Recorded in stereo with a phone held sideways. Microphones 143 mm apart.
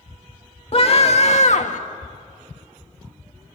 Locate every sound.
0.7 s a scream: 45° left (ahead or behind), 2.0 m; by 1.8 s 60° left (ahead or behind), 1.5 m